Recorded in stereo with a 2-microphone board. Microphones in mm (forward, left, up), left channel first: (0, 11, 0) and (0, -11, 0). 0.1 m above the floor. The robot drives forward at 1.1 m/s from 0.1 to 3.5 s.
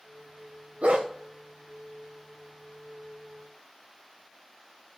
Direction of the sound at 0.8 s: 75° right (ahead or behind).